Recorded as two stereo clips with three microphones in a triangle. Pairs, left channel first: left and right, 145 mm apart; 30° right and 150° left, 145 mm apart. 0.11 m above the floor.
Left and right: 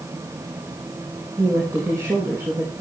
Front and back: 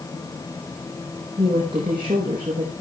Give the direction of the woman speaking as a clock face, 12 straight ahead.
5 o'clock.